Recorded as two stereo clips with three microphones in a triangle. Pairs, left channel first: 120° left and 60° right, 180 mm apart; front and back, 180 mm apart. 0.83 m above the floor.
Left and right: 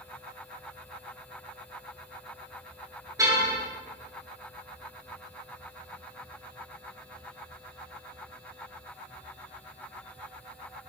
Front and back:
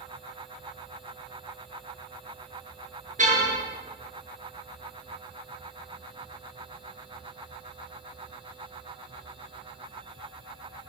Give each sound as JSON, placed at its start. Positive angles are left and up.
{"t": 3.2, "sound": "a car horn", "azimuth_deg": -130, "distance_m": 8.0}